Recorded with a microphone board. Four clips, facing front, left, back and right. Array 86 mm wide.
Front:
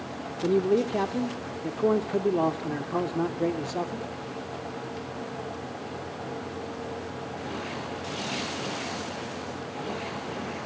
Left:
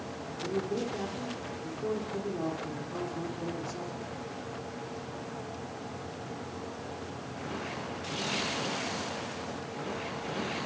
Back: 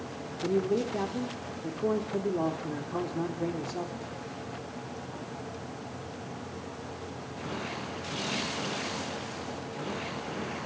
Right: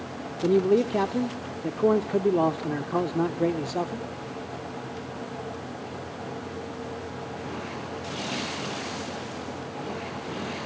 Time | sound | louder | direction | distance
0.4 | a man speaking | right 12 dB, front 5 dB | 65° right | 1.1 m